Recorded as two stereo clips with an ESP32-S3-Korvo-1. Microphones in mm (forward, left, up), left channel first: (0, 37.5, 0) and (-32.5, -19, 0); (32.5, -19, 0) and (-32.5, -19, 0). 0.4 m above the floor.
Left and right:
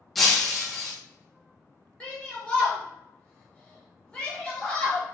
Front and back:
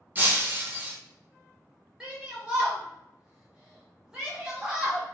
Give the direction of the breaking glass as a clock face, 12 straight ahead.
7 o'clock.